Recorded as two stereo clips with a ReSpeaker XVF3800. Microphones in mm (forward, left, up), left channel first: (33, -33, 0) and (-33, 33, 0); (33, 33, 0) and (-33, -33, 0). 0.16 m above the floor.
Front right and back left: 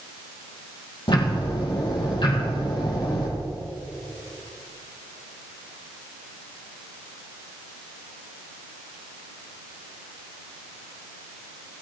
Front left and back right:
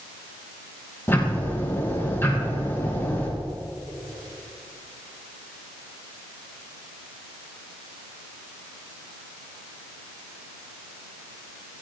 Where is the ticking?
20° right, 5 m.